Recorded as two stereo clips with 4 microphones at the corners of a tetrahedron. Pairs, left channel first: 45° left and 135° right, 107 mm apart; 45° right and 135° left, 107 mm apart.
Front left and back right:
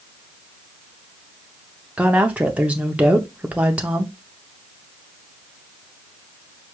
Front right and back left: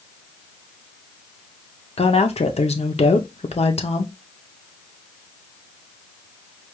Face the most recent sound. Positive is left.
turn(degrees=-55)